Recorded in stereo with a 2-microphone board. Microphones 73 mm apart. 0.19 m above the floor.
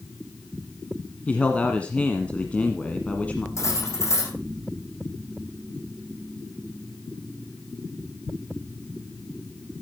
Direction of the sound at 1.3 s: 20° left (ahead or behind).